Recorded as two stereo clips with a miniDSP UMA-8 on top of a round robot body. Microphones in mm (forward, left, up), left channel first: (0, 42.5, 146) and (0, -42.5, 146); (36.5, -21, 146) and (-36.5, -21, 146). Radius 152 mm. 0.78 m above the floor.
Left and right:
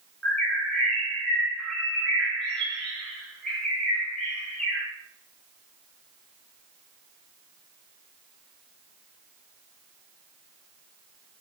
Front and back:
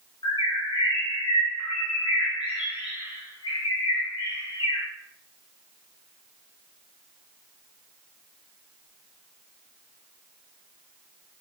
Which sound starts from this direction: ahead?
A bird, at 0.2 s.